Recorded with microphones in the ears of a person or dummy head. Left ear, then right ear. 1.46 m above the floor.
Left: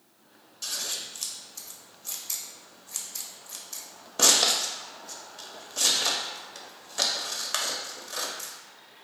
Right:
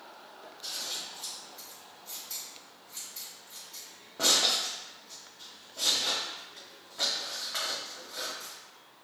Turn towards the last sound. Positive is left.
turn(degrees=80)